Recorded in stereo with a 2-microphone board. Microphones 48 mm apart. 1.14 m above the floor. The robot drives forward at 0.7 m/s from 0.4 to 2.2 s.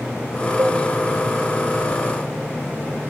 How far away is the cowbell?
About 0.7 m.